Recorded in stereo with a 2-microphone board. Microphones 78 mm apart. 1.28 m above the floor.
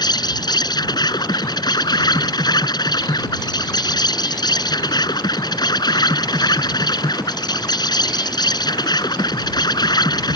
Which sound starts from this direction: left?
An insect, at 0.0 s.